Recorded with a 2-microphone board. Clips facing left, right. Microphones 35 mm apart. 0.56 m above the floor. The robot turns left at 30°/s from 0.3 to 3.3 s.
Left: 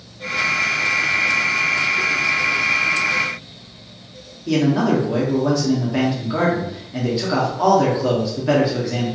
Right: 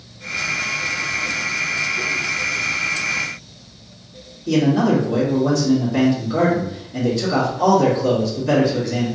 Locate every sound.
4.5 s a man speaking: 20° left (ahead or behind), 0.9 m